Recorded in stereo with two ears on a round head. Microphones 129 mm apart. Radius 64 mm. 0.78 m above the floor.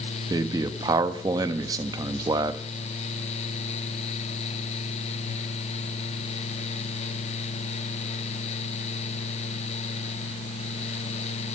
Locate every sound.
0.3 s a man speaking: 25° right (ahead or behind), 0.7 m